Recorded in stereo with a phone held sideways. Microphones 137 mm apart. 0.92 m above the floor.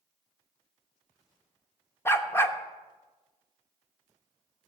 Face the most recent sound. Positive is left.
turn(degrees=20)  # may be behind; listen again after turning